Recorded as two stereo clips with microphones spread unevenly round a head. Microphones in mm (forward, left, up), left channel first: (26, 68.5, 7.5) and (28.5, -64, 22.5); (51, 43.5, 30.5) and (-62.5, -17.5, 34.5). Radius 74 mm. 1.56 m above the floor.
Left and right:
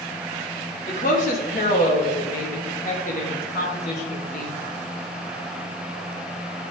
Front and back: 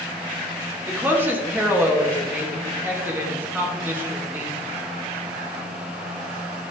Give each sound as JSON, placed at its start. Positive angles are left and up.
{"t": 0.9, "sound": "a woman speaking", "azimuth_deg": 135, "distance_m": 3.0}